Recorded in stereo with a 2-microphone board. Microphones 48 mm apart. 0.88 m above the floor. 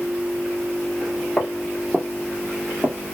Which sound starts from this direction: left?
Footsteps, at 1.4 s.